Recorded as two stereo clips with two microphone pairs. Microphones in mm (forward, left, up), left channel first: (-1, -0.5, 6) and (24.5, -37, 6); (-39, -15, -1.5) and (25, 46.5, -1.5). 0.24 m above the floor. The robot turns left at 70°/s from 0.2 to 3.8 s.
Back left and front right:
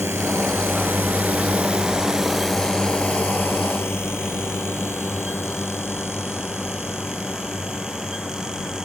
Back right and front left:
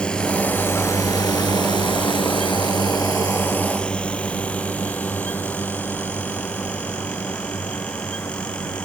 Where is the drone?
60° right; by 8.9 s 170° left.